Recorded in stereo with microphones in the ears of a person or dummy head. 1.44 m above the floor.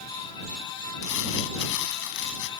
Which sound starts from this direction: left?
Crumpling, at 1.0 s.